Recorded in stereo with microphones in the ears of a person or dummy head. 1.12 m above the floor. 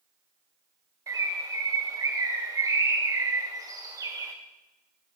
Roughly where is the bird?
Centre.